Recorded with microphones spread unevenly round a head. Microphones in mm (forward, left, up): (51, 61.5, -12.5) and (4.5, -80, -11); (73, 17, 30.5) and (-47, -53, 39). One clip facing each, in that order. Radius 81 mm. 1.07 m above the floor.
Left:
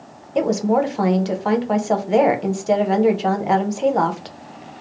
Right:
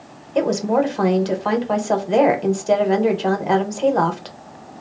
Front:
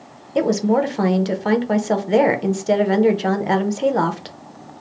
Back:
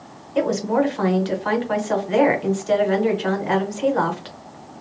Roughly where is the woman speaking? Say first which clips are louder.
Even, front 2 dB; ahead.